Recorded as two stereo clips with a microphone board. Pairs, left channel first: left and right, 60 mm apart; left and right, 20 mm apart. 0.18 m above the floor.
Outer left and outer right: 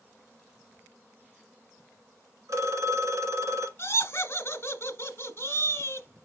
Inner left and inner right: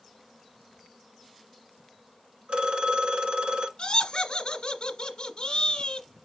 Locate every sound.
2.5 s a phone ringing: 60° right (ahead or behind), 1.1 m
3.8 s laughter: 45° left (ahead or behind), 1.3 m